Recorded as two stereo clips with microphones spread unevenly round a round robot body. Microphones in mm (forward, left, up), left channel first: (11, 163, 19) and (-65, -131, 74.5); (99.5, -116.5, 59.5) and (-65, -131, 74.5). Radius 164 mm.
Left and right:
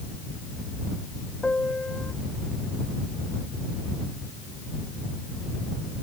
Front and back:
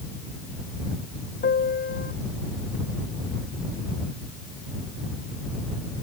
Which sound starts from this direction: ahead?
A piano, at 1.4 s.